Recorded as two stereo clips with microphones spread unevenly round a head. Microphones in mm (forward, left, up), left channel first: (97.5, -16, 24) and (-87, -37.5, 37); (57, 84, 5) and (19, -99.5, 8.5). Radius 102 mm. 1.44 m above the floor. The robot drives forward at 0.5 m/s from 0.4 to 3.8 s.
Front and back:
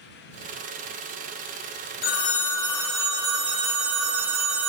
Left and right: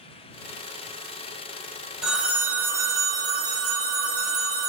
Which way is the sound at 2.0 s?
15° right.